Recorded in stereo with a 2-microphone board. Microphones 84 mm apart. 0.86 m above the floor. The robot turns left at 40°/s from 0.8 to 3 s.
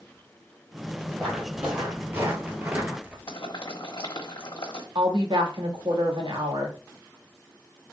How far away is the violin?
I don't hear a violin.